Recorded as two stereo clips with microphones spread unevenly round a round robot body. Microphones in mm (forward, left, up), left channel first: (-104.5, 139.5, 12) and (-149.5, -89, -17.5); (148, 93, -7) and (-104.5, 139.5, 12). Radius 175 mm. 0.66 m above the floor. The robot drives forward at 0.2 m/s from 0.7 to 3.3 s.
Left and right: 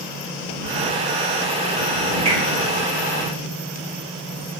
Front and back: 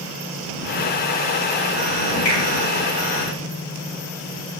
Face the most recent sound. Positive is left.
turn(degrees=-70)